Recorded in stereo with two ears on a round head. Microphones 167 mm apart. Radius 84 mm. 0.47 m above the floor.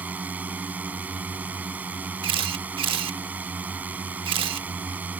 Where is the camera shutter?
30° right (ahead or behind).